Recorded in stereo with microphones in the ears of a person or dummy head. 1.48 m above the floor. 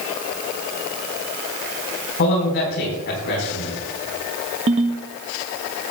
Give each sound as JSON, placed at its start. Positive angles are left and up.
{"t": 2.2, "sound": "a man speaking", "side_deg": 55, "distance_m": 4.5}
{"t": 4.7, "sound": "a ringtone", "side_deg": -35, "distance_m": 1.0}